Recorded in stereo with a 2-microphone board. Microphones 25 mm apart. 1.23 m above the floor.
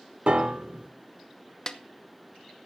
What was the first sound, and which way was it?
A piano, 50° right (ahead or behind).